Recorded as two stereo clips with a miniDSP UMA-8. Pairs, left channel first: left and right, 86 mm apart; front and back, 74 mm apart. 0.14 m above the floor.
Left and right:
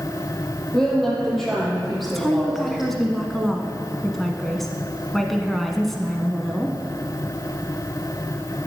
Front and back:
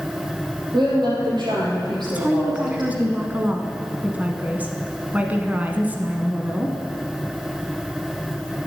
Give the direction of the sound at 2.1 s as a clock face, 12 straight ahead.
6 o'clock.